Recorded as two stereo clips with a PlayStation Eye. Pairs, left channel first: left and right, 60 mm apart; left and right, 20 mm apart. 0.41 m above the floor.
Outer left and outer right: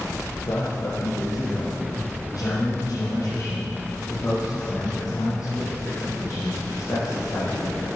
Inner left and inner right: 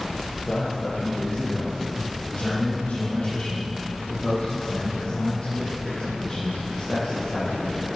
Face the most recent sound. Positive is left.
turn(degrees=55)  # may be behind; listen again after turning